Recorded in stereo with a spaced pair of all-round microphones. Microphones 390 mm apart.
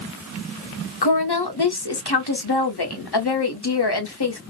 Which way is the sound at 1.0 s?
80° left.